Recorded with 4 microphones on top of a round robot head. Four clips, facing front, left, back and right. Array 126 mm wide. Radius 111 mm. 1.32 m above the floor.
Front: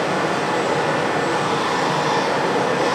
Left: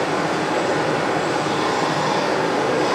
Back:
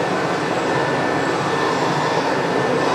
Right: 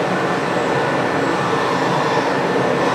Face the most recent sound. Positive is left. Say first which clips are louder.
# right 2 dB, even
turn(degrees=-110)